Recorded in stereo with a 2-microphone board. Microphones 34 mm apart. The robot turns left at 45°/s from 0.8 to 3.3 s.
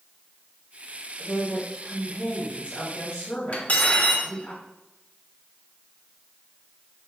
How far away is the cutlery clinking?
About 1.1 m.